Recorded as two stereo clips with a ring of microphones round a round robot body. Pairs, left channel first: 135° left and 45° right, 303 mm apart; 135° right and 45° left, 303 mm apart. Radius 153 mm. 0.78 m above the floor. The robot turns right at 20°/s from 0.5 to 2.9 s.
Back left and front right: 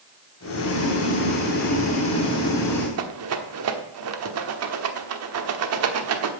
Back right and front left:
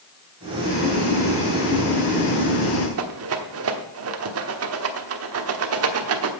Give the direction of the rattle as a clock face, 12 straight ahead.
12 o'clock.